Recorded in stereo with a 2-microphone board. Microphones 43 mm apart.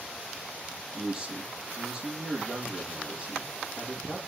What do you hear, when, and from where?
0.9 s a man speaking: 10° right (ahead or behind), 7 m